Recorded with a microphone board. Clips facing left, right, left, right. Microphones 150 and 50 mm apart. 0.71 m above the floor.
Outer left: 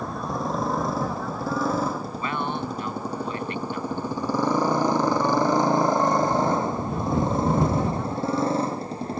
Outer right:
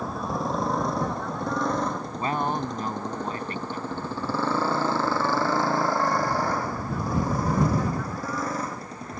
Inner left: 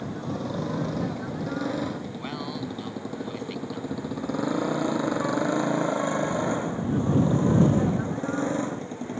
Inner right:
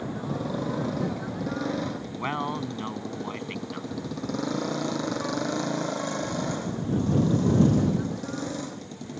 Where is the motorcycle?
Centre (ahead or behind); by 9.2 s 25° left (ahead or behind).